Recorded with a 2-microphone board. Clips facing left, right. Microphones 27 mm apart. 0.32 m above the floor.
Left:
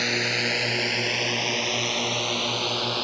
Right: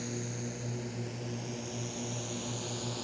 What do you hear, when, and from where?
0.0 s a drone: 70° left (ahead or behind); by 3.0 s 55° left (ahead or behind)